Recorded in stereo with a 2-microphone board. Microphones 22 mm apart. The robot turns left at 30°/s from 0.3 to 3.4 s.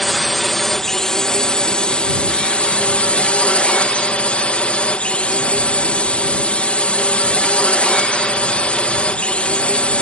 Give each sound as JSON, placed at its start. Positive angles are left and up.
{"t": 0.0, "sound": "a drone", "azimuth_deg": 175}